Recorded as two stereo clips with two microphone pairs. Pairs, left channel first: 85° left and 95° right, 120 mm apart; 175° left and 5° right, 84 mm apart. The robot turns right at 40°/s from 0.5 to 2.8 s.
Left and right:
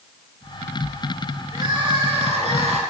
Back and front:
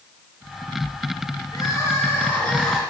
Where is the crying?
150° right, 3 m; by 2.8 s 100° right, 3 m.